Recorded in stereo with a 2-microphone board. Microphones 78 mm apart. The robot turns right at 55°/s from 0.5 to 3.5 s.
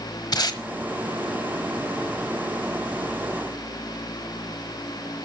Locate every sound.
0.3 s tape being pulled: 60° left (ahead or behind), 1.2 m